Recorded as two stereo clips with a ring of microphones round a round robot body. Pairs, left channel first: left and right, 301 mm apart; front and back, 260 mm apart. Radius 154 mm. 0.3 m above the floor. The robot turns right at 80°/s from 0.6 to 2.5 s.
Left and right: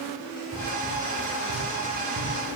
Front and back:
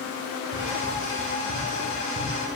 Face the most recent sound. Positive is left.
turn(degrees=-25)